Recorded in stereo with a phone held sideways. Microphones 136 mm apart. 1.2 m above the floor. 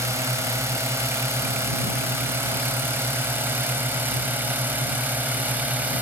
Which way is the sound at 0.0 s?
20° right (ahead or behind).